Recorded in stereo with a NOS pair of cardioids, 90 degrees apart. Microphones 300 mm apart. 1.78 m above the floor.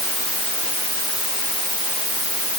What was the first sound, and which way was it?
Only background noise.